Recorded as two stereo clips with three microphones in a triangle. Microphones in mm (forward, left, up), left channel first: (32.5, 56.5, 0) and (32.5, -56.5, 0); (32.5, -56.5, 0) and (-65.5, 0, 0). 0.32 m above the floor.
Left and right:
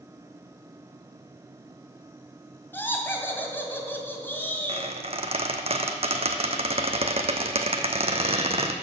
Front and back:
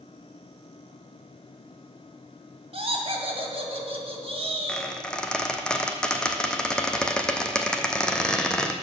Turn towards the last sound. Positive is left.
turn(degrees=-110)